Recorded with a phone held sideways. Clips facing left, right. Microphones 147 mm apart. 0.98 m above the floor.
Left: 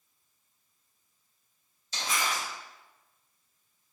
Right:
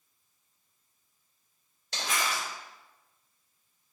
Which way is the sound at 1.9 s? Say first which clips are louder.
Even; 75° right (ahead or behind).